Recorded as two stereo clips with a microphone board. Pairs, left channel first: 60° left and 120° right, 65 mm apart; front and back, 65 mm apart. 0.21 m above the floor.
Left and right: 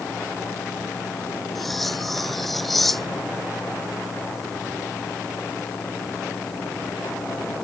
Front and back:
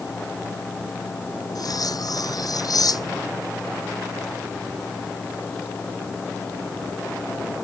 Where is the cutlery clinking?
30° right.